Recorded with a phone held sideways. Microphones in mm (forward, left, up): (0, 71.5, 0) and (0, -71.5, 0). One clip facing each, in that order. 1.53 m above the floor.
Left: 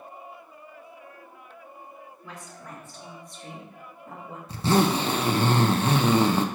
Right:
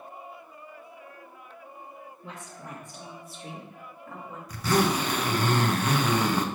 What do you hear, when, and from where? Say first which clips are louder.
2.2 s a woman speaking: right 1 dB; 25° right (ahead or behind), 3.5 m; by 4.4 s 30° left (ahead or behind), 2 m
4.5 s a zipper: left 3 dB; 25° left (ahead or behind), 0.8 m